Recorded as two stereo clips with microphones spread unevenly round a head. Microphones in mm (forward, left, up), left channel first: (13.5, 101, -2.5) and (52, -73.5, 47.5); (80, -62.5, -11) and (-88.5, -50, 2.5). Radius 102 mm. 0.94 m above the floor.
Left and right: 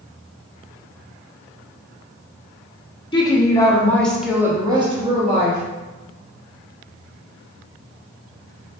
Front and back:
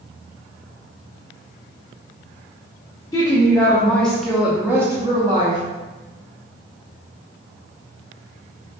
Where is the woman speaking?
60° left, 1.2 m; by 5.6 s 125° right, 1.0 m.